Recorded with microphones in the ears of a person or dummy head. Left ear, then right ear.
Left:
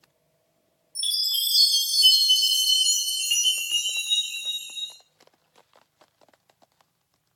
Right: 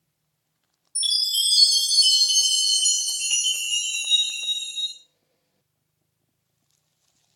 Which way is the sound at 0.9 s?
5° right (ahead or behind).